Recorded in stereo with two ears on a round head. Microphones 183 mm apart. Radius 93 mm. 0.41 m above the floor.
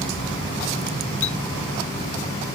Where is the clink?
75° left (ahead or behind).